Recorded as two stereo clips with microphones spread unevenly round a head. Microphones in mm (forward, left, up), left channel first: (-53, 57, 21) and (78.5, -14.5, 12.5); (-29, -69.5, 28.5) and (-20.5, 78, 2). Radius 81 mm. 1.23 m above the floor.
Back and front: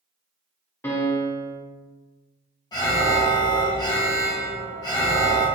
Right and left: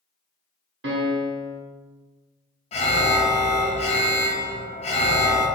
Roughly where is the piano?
Left.